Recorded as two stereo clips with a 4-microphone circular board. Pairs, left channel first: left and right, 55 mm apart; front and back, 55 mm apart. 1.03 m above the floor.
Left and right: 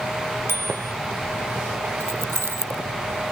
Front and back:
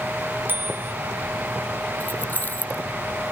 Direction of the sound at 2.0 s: 55° right.